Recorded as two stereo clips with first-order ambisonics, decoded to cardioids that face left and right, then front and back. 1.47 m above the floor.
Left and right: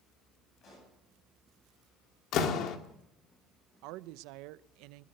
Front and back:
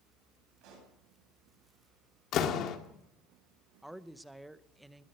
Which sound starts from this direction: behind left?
A pop, at 0.6 s.